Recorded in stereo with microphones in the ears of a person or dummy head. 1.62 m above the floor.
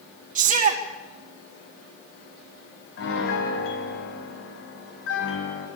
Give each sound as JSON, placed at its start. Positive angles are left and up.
{"t": 0.3, "sound": "a shout", "side_deg": -45, "distance_m": 2.0}
{"t": 3.0, "sound": "a piano", "side_deg": 70, "distance_m": 4.5}